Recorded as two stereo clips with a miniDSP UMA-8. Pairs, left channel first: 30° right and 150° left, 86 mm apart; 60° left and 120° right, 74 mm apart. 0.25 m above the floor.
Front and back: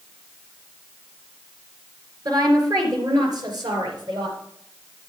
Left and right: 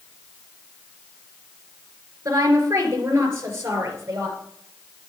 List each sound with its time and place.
2.2 s a woman speaking: 170° right, 3 m; by 4.4 s 175° right, 4 m